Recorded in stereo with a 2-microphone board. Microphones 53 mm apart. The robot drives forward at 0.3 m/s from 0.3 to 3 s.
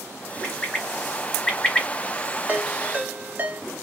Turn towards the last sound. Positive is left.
turn(degrees=-35)  # may be behind; listen again after turning